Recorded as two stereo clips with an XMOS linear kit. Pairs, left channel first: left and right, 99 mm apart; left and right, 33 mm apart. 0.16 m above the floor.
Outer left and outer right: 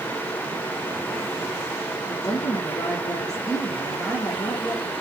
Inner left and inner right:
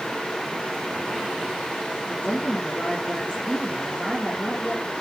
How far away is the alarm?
No alarm in this recording.